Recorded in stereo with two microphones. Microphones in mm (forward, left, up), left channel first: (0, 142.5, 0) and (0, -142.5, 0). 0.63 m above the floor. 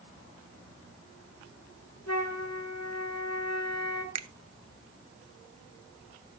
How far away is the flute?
About 2.0 m.